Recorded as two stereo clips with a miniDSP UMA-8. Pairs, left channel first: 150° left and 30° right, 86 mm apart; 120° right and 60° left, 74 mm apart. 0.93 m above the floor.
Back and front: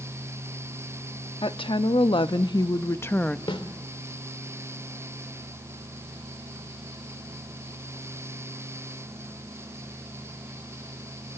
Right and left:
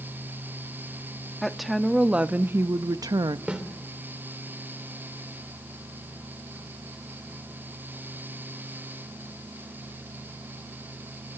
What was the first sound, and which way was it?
A woman speaking, 155° left.